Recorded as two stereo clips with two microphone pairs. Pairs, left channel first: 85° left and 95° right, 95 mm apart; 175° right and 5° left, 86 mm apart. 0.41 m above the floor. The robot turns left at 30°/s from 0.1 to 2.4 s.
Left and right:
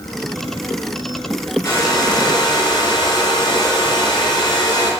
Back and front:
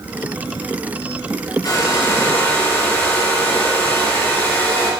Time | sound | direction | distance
1.6 | a hair dryer | 135° left | 2.5 m